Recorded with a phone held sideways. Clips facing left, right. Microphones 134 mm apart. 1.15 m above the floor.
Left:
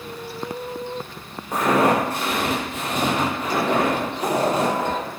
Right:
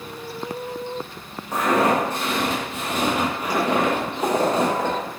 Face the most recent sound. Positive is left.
turn(degrees=-40)  # may be behind; listen again after turning